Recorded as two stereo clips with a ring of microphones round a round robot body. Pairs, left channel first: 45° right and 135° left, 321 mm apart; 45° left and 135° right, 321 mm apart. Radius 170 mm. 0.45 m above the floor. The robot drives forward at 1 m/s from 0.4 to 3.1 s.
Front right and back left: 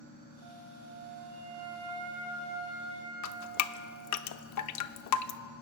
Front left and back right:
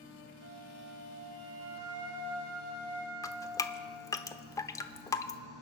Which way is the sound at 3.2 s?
35° right.